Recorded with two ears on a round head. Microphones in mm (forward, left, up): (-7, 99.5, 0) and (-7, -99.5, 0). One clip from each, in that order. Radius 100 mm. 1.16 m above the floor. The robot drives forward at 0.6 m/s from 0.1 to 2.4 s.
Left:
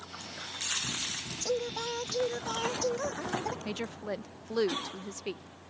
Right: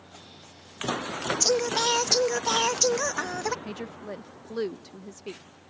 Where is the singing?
55° right (ahead or behind).